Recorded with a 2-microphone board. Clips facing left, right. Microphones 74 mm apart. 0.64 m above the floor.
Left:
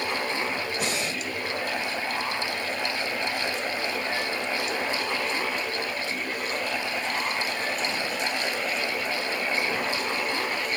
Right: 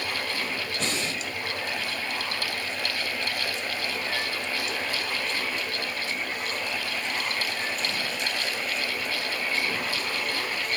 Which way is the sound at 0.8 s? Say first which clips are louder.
Left 1 dB; 10° left (ahead or behind).